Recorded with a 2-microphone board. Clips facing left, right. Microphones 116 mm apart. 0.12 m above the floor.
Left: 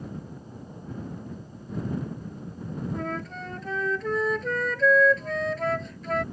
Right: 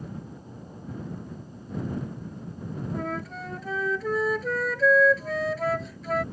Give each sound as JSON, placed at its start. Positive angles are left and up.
{"t": 2.9, "sound": "a flute", "side_deg": -5}